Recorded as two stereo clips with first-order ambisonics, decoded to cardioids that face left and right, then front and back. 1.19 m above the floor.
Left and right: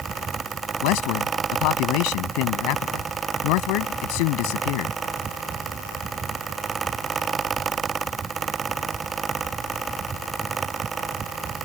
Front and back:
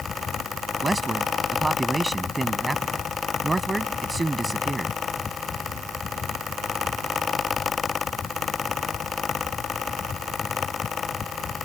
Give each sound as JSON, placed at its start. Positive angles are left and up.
{"t": 0.8, "sound": "a man speaking", "azimuth_deg": 100}